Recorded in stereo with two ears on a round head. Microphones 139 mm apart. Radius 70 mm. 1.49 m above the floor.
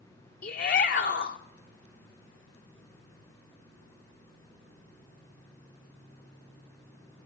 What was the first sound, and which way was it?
A shout, 60° left (ahead or behind).